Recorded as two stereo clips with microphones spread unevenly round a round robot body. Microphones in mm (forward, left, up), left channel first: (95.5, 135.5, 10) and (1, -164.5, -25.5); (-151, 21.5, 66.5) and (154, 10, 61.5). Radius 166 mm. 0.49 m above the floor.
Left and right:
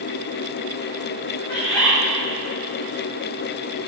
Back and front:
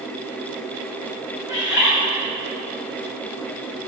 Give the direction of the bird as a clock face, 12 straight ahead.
7 o'clock.